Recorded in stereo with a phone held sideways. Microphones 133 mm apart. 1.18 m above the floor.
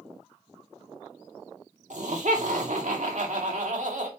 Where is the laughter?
65° right (ahead or behind), 2.5 m.